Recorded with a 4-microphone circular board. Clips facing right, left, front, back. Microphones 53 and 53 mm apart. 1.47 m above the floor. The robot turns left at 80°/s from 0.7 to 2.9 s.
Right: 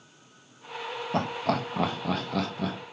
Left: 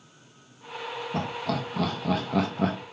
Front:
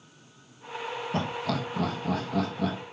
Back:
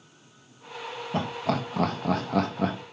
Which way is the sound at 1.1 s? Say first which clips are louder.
Right 3 dB, back 3 dB; 100° right.